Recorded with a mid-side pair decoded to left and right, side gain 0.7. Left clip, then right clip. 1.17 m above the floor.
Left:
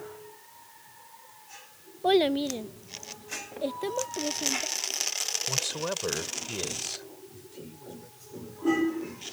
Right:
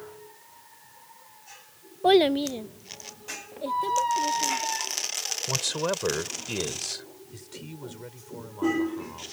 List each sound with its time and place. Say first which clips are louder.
2.0 s a child speaking: right 4 dB; 25° right; by 4.7 s 20° left
3.7 s a squeak: right 9 dB; 55° right
5.5 s a man speaking: right 3 dB; 25° right
7.3 s a man speaking: right 3 dB; 45° right